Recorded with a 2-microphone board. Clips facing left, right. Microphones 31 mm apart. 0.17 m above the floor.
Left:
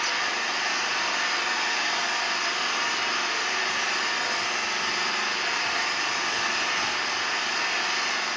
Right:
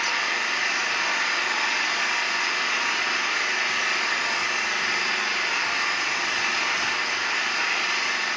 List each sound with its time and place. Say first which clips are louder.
0.0 s an engine running: right 2 dB; 50° right (ahead or behind), 3 m